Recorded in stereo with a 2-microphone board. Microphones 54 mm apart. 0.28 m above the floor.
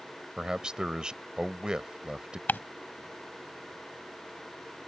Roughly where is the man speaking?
Centre.